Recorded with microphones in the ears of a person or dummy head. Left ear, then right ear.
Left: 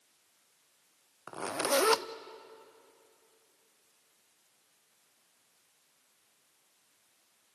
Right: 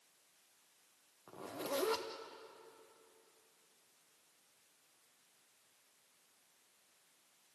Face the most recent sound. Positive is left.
turn(degrees=60)  # may be behind; listen again after turning